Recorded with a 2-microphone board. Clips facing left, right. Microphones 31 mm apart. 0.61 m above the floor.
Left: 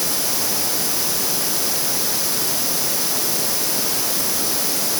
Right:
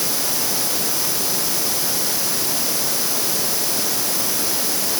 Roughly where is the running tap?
I don't hear a running tap.